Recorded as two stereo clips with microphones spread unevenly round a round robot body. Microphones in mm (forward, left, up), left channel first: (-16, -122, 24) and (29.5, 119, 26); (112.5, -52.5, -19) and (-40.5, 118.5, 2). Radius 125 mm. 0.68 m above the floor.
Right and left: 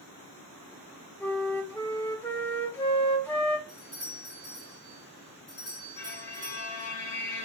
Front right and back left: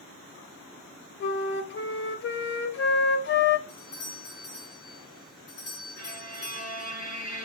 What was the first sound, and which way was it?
A flute, 20° right.